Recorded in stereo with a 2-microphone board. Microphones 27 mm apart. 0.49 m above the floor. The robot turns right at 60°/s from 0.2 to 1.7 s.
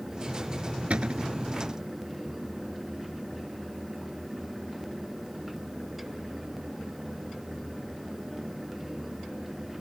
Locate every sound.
0.9 s a cupboard door: 55° right (ahead or behind); by 1.3 s 30° right (ahead or behind)